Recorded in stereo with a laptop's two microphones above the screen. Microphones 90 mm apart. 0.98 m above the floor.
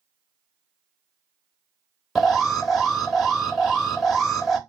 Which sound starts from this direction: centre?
An alarm, at 2.1 s.